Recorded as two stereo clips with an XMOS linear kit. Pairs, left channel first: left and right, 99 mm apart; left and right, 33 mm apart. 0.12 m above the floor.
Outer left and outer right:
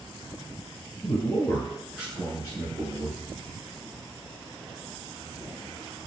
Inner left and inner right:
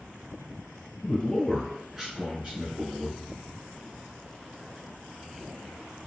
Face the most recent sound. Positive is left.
turn(degrees=-40)  # may be behind; listen again after turning